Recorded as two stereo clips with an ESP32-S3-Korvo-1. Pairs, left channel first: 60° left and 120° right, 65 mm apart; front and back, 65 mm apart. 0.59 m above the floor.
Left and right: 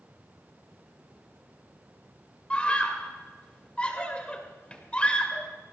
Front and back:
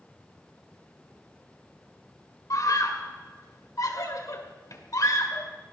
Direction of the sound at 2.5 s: 10° right.